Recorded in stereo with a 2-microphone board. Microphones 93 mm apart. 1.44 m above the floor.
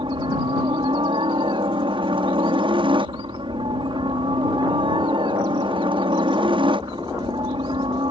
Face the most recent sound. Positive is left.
turn(degrees=-65)  # may be behind; listen again after turning